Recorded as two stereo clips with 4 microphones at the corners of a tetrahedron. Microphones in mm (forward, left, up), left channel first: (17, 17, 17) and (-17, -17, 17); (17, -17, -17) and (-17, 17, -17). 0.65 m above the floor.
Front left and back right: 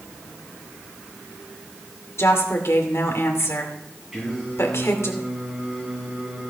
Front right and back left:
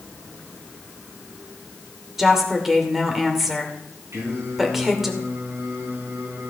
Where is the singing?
150° left, 6.5 m.